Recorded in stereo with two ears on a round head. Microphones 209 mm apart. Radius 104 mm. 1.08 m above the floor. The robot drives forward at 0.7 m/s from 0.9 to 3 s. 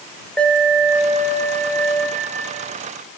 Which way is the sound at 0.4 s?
5° left (ahead or behind).